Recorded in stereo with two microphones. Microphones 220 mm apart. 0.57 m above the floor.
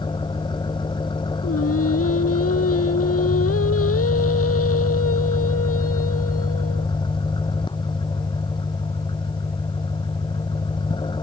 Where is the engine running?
20° left (ahead or behind).